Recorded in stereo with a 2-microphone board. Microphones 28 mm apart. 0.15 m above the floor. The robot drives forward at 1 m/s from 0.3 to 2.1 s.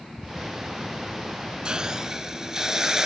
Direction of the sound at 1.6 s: 35° right (ahead or behind).